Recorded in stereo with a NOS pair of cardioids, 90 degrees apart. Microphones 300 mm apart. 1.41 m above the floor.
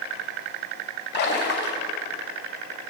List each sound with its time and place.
1.1 s a splash: 35° left, 2.5 m